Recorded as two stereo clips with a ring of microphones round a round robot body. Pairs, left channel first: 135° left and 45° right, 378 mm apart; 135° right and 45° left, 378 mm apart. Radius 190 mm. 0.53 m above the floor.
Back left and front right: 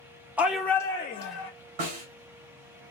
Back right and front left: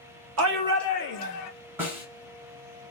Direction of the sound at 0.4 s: 40° left.